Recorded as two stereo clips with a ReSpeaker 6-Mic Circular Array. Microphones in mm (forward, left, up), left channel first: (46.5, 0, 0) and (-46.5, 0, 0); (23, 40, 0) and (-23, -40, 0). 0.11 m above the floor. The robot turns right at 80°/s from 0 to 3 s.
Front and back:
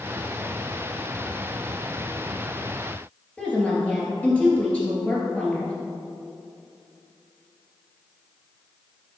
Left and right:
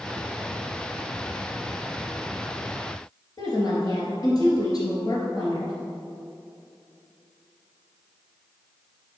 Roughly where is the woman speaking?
Left.